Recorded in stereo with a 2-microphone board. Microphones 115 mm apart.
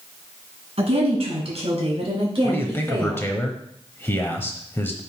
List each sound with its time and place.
0.8 s a woman speaking: 55° right (ahead or behind), 2.5 m; by 3.3 s 40° right (ahead or behind), 3.5 m
2.4 s a man speaking: 20° left (ahead or behind), 1.0 m